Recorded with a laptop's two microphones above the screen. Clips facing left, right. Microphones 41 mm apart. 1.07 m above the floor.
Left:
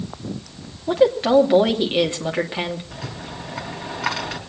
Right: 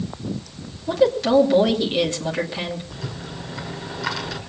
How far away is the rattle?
About 3.5 m.